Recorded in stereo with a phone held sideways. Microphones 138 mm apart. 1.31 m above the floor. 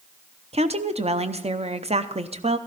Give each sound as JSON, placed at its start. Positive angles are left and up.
{"t": 0.5, "sound": "a woman speaking", "side_deg": -50, "distance_m": 0.7}